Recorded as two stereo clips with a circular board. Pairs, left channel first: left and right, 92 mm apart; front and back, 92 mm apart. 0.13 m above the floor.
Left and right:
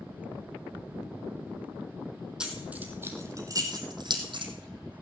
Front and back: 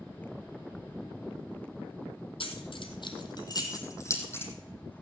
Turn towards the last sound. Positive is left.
turn(degrees=-65)